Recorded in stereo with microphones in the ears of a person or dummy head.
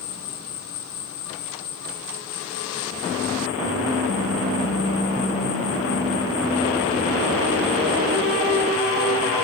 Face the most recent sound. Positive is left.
turn(degrees=60)  # may be behind; listen again after turning